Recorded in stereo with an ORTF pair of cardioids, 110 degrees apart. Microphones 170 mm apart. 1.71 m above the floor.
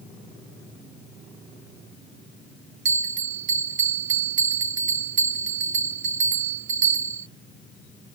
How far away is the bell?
About 0.8 m.